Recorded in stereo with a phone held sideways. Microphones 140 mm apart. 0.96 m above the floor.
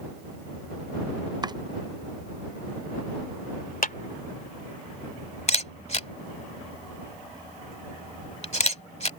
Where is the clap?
75° left (ahead or behind).